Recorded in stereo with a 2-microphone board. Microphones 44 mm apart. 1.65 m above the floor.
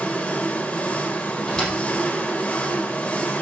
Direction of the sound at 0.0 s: 30° left (ahead or behind).